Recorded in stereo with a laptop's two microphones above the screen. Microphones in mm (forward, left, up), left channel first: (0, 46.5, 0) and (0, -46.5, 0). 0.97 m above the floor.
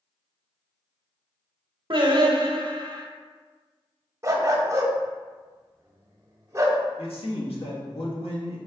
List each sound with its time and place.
1.9 s singing: 55° right (ahead or behind), 0.8 m
4.2 s a dog barking: 35° right (ahead or behind), 0.6 m
7.0 s a man speaking: 75° left (ahead or behind), 1.1 m